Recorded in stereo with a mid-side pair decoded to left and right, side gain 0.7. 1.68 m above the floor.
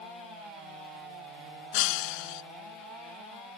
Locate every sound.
1.7 s breaking glass: 70° left